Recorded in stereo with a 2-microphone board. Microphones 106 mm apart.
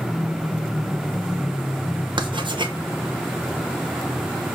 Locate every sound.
2.2 s writing: 55° right (ahead or behind), 0.6 m